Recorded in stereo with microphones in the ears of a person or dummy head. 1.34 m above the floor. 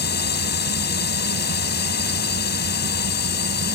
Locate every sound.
0.0 s a drone: 50° left (ahead or behind)